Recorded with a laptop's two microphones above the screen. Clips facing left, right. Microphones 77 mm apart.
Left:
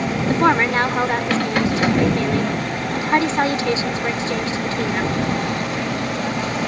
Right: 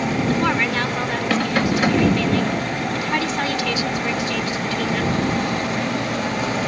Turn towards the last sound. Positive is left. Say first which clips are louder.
# left 7 dB
turn(degrees=30)  # may be behind; listen again after turning